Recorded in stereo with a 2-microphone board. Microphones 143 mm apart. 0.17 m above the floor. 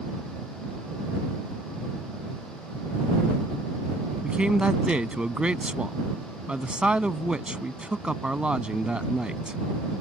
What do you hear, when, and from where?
4.2 s a man speaking: 5° right (ahead or behind)